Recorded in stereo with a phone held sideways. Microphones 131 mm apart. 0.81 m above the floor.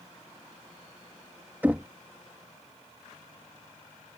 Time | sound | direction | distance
1.6 | knocking | 10° right (ahead or behind) | ?